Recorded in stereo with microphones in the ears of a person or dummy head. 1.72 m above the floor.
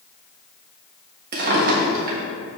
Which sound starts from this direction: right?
A drawer, at 1.3 s.